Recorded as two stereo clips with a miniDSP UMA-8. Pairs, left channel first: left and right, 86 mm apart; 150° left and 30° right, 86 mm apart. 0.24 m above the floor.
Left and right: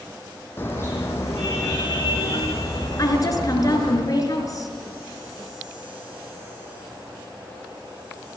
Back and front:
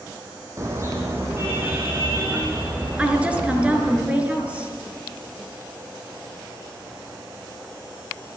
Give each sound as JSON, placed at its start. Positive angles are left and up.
{"t": 0.6, "sound": "a car horn", "azimuth_deg": 25, "distance_m": 4.0}
{"t": 3.0, "sound": "a woman speaking", "azimuth_deg": 45, "distance_m": 4.0}